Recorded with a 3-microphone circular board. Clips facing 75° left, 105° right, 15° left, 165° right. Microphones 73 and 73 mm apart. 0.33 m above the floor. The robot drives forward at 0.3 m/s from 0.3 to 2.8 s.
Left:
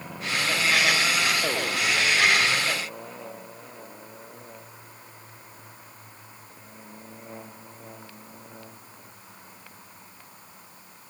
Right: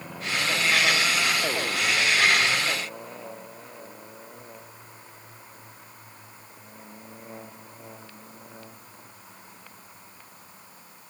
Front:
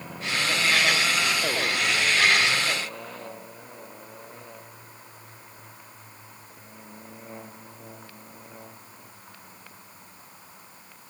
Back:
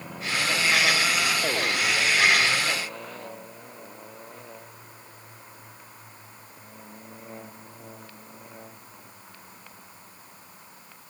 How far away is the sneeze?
No sneeze in this recording.